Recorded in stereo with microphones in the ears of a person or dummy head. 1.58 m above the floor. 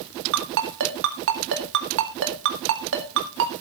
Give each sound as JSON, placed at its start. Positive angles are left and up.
{"t": 0.3, "sound": "a ringtone", "side_deg": -65, "distance_m": 1.6}